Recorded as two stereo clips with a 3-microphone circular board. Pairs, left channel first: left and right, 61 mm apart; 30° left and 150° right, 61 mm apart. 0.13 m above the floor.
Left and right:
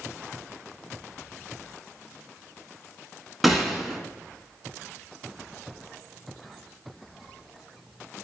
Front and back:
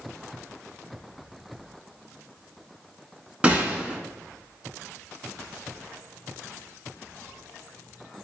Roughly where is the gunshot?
Behind.